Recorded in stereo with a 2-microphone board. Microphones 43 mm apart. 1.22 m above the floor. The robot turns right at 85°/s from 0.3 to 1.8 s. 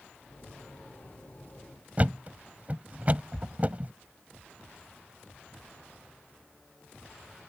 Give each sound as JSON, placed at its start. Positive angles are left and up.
{"t": 2.0, "sound": "a thud", "side_deg": -35}